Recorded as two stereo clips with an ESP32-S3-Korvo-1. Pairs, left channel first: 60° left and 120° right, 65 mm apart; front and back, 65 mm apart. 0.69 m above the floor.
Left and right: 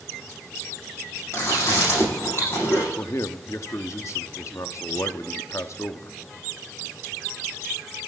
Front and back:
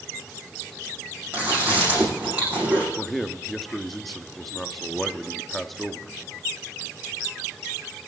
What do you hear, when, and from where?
1.3 s chewing: 110° left, 8 m
3.0 s a man speaking: 85° left, 0.8 m